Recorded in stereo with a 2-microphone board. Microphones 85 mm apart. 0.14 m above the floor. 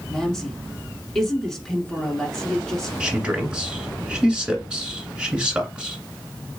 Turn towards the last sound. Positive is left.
turn(degrees=-15)  # may be behind; listen again after turning